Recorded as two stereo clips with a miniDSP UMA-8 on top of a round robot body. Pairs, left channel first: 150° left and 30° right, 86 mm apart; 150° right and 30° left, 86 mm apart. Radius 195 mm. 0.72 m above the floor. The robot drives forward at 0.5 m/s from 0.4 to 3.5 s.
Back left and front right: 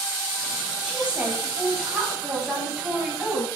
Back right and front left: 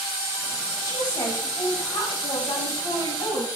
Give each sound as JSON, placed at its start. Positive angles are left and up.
{"t": 0.8, "sound": "a woman speaking", "azimuth_deg": -105, "distance_m": 5.5}